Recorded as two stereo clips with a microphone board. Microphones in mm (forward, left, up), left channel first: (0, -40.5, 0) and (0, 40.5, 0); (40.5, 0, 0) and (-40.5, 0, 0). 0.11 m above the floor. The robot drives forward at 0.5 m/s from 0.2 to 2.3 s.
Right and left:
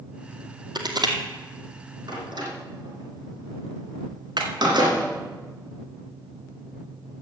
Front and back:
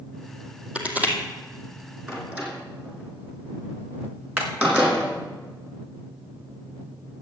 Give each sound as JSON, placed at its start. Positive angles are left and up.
{"t": 0.8, "sound": "crushing", "azimuth_deg": 105, "distance_m": 2.0}
{"t": 2.1, "sound": "a door slam", "azimuth_deg": 115, "distance_m": 4.0}
{"t": 4.4, "sound": "hammering", "azimuth_deg": 115, "distance_m": 4.0}